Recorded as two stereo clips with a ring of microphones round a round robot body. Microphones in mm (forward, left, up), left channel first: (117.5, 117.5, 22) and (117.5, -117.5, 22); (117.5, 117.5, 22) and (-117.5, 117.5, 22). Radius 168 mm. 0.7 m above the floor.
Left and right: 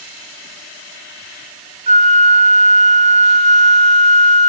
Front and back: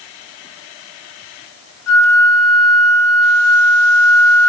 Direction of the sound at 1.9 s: 25° right.